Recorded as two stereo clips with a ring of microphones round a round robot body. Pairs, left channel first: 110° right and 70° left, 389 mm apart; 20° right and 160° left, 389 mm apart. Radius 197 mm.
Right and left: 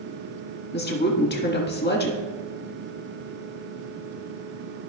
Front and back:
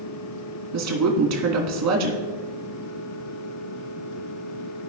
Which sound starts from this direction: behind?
A woman speaking, at 0.7 s.